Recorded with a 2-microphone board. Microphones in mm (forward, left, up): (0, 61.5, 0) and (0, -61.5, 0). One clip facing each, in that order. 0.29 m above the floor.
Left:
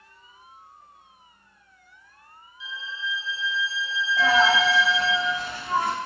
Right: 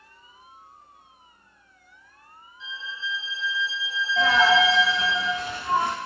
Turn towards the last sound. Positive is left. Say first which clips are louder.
# right 1 dB
turn(degrees=-75)  # may be behind; listen again after turning